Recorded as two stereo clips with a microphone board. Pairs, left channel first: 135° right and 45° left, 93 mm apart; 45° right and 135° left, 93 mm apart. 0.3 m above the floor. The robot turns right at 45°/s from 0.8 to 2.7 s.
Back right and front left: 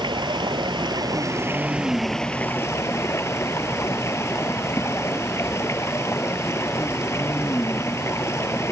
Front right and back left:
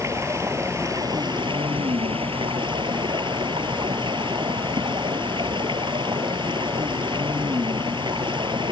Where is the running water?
80° left; by 8.7 s 165° left.